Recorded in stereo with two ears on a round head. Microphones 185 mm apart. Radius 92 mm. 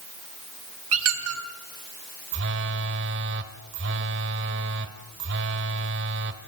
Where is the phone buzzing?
60° right (ahead or behind), 1.7 m.